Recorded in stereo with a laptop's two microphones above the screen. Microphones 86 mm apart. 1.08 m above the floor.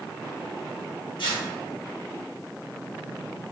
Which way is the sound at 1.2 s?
65° left (ahead or behind).